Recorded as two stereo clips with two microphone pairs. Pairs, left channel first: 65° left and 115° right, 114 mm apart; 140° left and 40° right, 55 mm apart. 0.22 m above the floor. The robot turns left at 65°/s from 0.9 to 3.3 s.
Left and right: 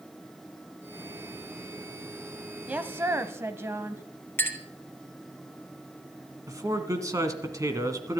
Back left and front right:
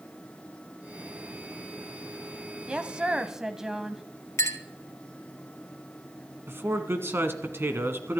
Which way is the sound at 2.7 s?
60° right.